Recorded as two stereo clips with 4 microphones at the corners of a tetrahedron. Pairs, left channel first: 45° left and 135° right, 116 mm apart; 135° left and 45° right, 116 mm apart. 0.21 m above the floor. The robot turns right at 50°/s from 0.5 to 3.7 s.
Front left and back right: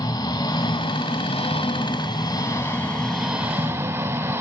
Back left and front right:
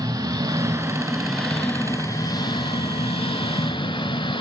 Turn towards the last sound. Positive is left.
turn(degrees=165)